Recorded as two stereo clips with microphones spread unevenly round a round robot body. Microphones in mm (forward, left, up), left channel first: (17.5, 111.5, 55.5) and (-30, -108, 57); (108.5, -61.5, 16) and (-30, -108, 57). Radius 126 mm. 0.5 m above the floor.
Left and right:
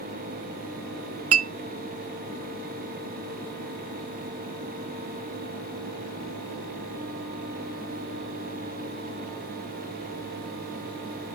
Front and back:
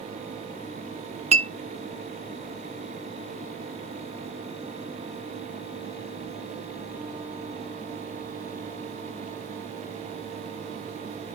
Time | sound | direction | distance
1.3 | a clink | 105° right | 0.6 m